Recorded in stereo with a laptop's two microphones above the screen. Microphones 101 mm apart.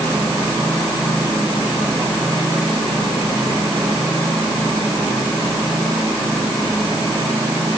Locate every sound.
Only background noise.